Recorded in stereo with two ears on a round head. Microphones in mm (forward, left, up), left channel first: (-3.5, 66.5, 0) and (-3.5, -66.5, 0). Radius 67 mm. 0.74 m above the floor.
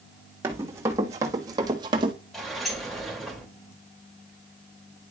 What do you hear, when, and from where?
0.4 s running footsteps: 15° right (ahead or behind), 3 m; by 2.1 s 35° right (ahead or behind), 1.9 m
2.3 s a sliding door: centre (ahead or behind), 2.5 m